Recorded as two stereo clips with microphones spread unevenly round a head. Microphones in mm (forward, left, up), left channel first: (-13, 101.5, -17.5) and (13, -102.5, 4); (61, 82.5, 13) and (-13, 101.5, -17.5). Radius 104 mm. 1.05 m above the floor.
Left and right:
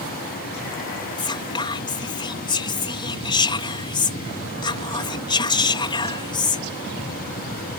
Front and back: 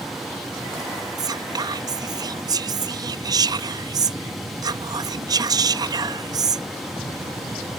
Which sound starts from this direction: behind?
Whispering, at 1.2 s.